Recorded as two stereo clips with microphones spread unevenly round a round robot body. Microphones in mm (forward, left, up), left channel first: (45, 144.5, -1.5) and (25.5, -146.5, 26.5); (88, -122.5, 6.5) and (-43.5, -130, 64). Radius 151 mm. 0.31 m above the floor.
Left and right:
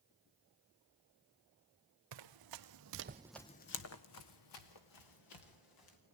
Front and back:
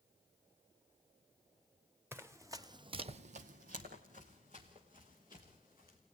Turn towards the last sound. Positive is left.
turn(degrees=105)